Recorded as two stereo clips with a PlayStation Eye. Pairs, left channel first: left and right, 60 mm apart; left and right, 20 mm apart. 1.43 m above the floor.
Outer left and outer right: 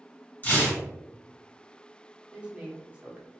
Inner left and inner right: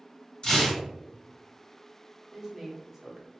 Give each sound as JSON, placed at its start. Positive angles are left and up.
{"t": 0.4, "sound": "tearing paper", "side_deg": 35, "distance_m": 1.8}
{"t": 2.3, "sound": "a woman speaking", "side_deg": -20, "distance_m": 0.8}